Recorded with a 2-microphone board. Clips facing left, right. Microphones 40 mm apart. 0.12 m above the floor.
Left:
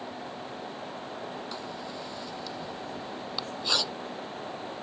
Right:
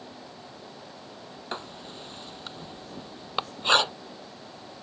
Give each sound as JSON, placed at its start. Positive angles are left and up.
{"t": 1.5, "sound": "writing", "side_deg": -45}